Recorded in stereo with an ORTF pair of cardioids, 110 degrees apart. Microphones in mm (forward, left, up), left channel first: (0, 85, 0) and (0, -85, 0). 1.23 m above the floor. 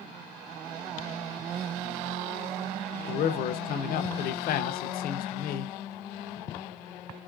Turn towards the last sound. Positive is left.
turn(degrees=60)